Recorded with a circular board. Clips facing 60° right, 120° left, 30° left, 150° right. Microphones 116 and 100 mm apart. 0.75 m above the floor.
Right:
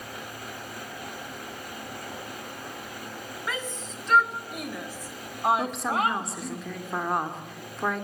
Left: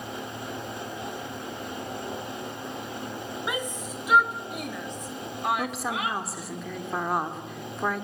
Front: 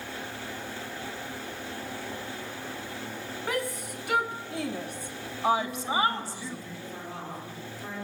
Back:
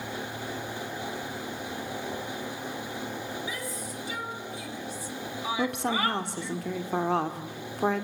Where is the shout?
45° left, 3 m; by 6.6 s 55° right, 1.6 m.